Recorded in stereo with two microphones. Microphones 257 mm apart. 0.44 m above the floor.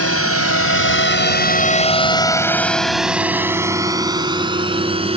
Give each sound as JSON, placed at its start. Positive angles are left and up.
{"t": 0.0, "sound": "a drone", "side_deg": 65}